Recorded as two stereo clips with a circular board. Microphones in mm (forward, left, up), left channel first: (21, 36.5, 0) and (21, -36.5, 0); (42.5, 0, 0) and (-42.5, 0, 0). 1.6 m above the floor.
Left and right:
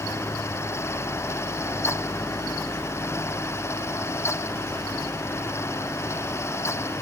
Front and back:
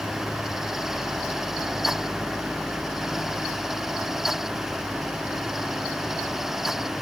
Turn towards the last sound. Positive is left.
No sound to turn to.